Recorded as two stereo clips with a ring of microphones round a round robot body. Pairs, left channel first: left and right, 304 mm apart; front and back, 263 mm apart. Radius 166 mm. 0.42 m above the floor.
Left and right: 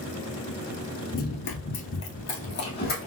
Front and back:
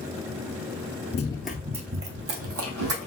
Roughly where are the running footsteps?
Ahead left.